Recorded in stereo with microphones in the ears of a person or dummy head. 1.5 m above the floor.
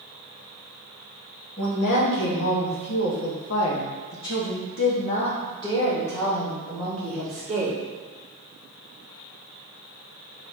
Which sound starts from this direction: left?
A woman speaking, at 1.6 s.